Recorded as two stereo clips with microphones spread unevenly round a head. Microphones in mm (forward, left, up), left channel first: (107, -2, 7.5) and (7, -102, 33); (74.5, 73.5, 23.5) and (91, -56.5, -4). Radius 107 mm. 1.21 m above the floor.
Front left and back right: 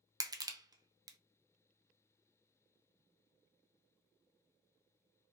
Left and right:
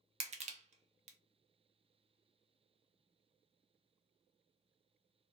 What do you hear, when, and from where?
0.2 s crushing: 65° right, 0.6 m